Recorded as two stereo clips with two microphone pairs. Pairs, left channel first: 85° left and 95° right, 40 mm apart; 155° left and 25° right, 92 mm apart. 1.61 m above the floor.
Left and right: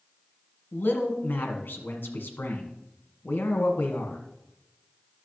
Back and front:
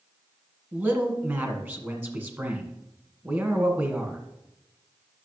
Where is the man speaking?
45° left, 1.5 m.